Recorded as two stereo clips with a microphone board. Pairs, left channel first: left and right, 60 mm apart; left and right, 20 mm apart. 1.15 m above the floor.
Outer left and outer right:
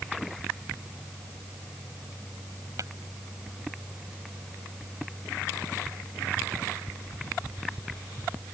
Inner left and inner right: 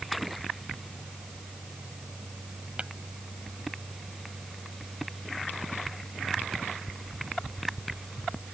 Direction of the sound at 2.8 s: 75° right (ahead or behind).